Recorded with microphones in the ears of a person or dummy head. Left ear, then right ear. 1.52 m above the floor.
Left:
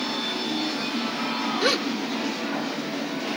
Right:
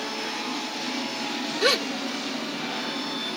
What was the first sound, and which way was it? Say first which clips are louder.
A gasp: right 2 dB; 15° right (ahead or behind).